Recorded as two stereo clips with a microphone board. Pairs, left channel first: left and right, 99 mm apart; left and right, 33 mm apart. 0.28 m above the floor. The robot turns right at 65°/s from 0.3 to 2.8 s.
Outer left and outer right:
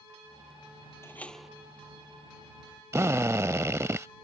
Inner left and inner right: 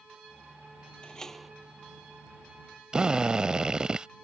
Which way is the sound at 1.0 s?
155° left.